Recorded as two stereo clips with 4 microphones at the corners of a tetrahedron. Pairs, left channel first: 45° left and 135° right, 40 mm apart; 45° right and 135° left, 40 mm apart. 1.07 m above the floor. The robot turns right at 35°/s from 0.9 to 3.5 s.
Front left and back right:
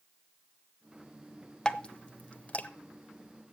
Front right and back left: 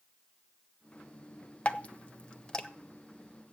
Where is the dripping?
15° right, 0.8 m; by 2.7 s 20° left, 0.8 m.